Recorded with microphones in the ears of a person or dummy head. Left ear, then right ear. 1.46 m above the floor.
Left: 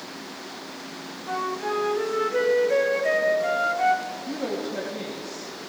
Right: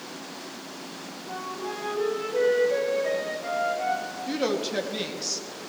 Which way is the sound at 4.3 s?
65° right (ahead or behind).